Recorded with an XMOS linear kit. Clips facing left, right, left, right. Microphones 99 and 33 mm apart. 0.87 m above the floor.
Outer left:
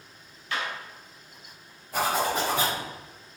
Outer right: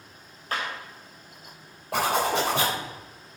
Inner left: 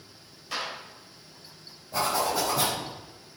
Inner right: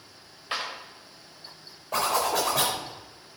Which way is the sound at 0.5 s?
40° right (ahead or behind).